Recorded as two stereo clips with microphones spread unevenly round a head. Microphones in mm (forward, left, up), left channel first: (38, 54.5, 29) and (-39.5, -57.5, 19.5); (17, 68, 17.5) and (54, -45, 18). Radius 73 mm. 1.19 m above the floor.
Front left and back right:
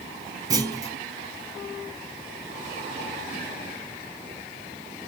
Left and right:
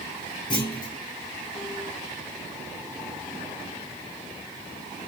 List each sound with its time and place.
0.5 s a clunk: 170° left, 0.8 m